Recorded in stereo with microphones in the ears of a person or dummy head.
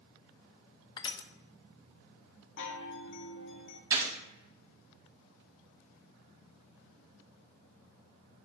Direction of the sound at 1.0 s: 25° left (ahead or behind).